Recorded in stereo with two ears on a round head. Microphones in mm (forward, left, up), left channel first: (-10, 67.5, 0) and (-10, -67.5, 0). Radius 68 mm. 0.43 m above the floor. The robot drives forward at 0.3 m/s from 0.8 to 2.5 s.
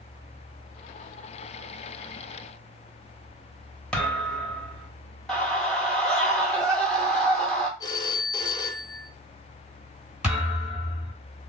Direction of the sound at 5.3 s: 5° left (ahead or behind).